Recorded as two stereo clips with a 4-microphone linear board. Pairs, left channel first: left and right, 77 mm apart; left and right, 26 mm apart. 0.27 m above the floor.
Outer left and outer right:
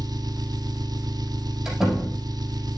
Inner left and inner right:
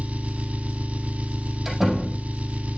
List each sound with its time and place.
0.0 s an engine running: 60° right (ahead or behind), 0.8 m
1.6 s a door slam: 5° right (ahead or behind), 6 m